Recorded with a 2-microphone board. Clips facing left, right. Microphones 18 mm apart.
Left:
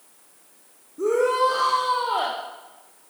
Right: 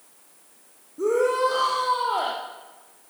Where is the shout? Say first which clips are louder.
Left 1 dB; 5° left (ahead or behind), 7.5 m.